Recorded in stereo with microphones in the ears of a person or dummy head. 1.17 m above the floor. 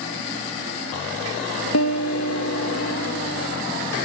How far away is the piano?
About 1.1 m.